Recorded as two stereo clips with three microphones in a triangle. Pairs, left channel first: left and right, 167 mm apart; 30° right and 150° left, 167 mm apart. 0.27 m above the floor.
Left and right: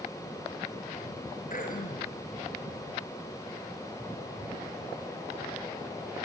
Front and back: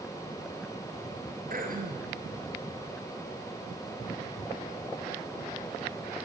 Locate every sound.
1.5 s throat clearing: 120° left, 3.5 m